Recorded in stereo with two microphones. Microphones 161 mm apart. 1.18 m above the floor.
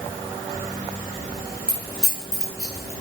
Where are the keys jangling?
80° left, 3 m.